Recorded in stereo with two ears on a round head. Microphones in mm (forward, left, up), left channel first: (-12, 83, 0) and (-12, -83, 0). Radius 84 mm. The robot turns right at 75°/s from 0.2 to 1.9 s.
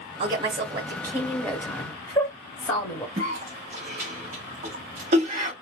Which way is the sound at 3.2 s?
45° right (ahead or behind).